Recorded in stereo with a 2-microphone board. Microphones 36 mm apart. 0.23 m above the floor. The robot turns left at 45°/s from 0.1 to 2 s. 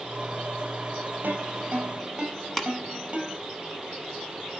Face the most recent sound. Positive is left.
turn(degrees=5)  # may be behind; listen again after turning